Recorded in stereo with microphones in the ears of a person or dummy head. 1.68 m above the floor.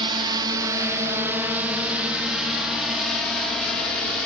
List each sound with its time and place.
0.0 s a drone: 30° right (ahead or behind); by 4.3 s 5° left (ahead or behind)